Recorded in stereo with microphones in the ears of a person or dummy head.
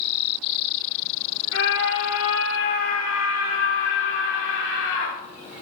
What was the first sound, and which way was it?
A scream, 70° left (ahead or behind).